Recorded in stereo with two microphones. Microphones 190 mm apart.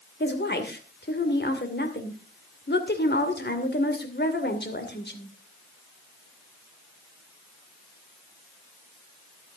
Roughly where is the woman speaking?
Left.